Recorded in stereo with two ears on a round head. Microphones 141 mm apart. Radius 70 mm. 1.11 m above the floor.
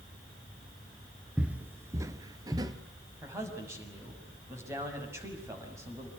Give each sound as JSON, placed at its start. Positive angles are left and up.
{"t": 1.4, "sound": "footsteps", "side_deg": -5, "distance_m": 1.1}
{"t": 3.2, "sound": "a man speaking", "side_deg": -15, "distance_m": 6.5}